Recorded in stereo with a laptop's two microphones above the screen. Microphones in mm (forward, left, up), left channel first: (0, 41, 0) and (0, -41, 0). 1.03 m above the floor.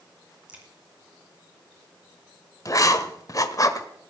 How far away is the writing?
About 1.2 m.